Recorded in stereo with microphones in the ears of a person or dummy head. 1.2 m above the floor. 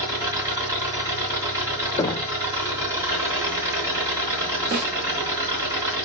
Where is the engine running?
15° right (ahead or behind), 3 m.